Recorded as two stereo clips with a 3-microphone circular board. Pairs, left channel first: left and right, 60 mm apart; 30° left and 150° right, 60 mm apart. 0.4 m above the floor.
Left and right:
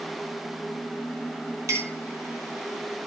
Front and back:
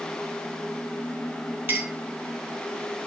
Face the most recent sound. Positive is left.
turn(degrees=-100)